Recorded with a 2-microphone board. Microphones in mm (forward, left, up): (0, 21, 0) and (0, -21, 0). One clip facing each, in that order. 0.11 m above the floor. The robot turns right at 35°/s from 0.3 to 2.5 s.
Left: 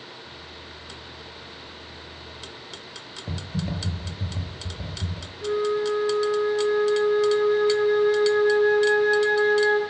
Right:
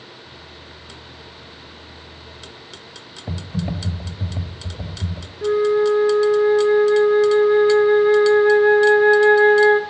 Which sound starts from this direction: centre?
Typing on a keyboard, at 3.3 s.